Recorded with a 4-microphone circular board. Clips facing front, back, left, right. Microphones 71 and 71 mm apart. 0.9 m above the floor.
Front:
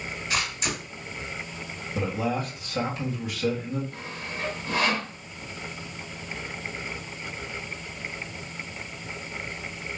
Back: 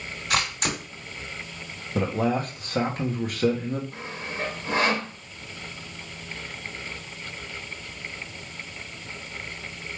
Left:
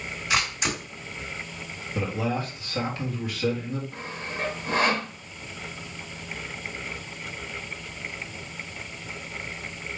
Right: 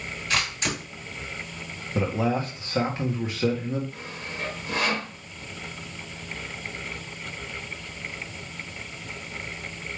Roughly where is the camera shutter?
Behind.